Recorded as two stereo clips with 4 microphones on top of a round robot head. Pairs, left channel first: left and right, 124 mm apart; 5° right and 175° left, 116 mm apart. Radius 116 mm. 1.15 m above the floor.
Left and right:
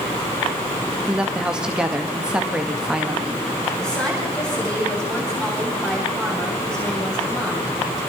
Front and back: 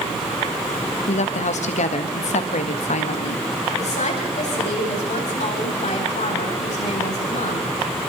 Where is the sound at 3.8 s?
10° left, 9 m.